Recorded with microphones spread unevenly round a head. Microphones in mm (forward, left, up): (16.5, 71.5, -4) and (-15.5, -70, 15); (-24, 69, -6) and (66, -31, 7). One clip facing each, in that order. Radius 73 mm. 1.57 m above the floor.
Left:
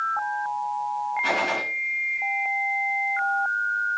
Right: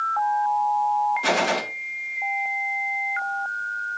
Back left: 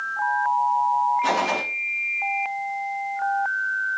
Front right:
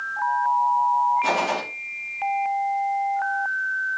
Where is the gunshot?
135° right, 1.6 m.